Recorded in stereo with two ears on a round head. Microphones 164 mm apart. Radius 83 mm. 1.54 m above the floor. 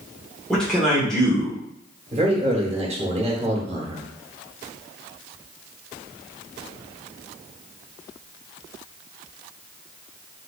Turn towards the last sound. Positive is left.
turn(degrees=-35)  # may be behind; listen again after turning